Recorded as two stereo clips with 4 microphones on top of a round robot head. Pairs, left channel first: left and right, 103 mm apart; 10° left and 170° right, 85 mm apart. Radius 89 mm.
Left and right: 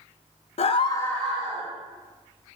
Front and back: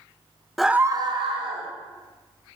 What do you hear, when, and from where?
0.6 s a scream: 100° left, 0.5 m; by 1.7 s 165° right, 1.0 m